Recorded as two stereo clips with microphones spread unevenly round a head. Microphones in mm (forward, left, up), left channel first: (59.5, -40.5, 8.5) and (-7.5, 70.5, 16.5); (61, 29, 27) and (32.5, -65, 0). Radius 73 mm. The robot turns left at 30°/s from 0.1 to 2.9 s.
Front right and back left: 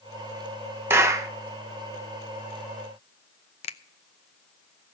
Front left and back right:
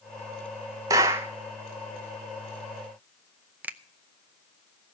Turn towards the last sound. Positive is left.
turn(degrees=-25)